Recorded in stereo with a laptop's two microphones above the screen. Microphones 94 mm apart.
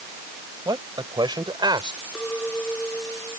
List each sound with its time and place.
0.7 s a man speaking: 50° right (ahead or behind); by 2.0 s 55° right (ahead or behind)
2.1 s a clink: 10° left (ahead or behind)